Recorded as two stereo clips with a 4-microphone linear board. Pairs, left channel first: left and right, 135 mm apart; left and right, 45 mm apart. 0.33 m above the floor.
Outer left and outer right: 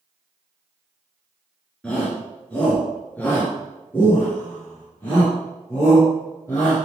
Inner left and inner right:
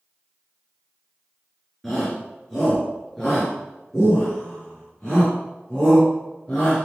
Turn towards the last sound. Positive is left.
turn(degrees=20)  # may be behind; listen again after turning